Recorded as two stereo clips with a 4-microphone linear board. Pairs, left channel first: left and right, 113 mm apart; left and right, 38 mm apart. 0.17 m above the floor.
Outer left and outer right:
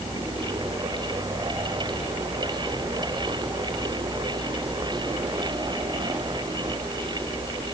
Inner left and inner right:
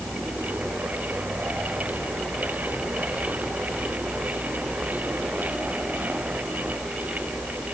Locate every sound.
Only background noise.